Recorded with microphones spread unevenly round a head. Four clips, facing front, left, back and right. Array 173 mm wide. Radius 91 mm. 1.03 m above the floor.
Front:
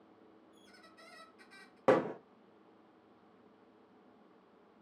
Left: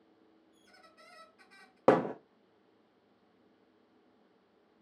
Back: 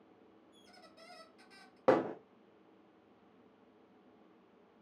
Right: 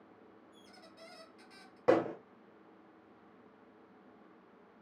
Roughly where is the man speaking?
I don't hear a man speaking.